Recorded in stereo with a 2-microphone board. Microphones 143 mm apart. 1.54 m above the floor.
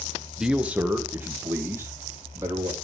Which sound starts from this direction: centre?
A man speaking, at 0.4 s.